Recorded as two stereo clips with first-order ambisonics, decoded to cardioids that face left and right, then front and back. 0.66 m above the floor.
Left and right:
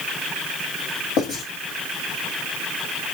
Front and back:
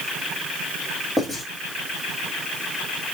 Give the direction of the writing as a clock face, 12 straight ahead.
9 o'clock.